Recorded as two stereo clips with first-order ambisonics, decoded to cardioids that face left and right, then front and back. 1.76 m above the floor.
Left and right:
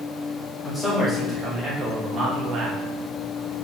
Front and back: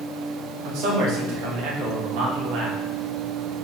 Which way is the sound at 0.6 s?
175° left.